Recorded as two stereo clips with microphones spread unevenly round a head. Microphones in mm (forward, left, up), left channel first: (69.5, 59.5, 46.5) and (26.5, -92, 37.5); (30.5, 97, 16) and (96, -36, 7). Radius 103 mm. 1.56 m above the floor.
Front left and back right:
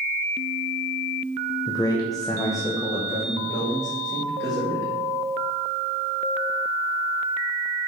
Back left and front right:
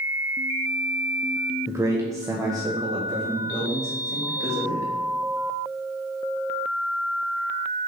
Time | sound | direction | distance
1.7 | a man speaking | 10° left | 1.0 m